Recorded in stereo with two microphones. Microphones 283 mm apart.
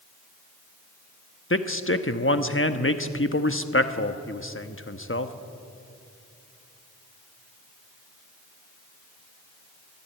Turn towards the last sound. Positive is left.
turn(degrees=45)  # may be behind; listen again after turning